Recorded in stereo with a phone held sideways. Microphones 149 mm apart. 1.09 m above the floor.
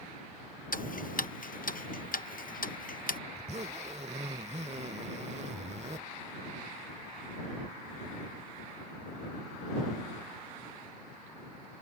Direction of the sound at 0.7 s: 70° left (ahead or behind).